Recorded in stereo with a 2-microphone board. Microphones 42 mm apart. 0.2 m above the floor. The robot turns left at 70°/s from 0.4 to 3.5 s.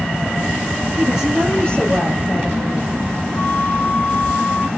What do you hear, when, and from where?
1.0 s a woman speaking: 150° right, 4.5 m; by 2.9 s 75° left, 4.5 m
3.4 s a flute: 55° left (ahead or behind), 4 m; by 4.7 s 50° left (ahead or behind), 4 m